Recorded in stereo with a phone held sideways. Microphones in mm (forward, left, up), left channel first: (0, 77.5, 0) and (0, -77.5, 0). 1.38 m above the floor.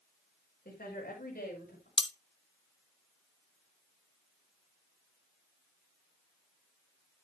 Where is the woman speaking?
70° left (ahead or behind), 5 m.